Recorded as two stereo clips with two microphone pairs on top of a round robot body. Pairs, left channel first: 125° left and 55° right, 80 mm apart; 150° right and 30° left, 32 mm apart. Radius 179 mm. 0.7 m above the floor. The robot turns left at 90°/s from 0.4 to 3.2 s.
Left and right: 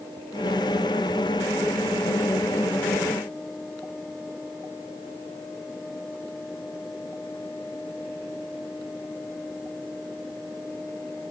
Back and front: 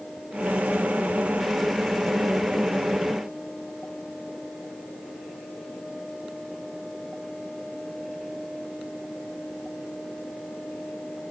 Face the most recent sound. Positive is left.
No sound to turn to.